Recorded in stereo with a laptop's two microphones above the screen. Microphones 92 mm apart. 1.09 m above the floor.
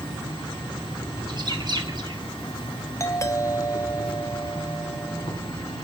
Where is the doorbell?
35° left (ahead or behind), 0.9 m.